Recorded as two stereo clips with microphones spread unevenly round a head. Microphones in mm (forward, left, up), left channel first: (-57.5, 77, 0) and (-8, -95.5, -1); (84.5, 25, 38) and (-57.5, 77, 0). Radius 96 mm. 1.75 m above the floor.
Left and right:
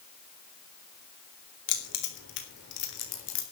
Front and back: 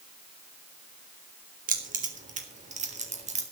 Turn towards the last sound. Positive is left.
turn(degrees=115)